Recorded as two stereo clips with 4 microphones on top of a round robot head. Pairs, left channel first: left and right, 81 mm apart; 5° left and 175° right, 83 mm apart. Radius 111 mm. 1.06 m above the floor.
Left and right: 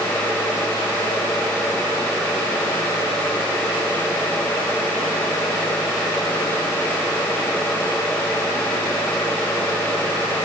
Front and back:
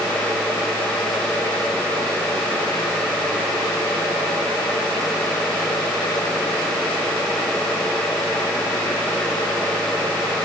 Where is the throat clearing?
I don't hear throat clearing.